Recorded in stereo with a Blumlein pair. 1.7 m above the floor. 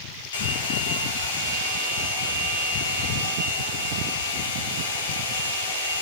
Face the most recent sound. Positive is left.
turn(degrees=65)